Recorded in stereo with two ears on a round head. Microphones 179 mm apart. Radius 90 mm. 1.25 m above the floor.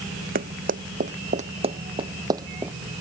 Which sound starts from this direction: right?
Running footsteps, at 0.3 s.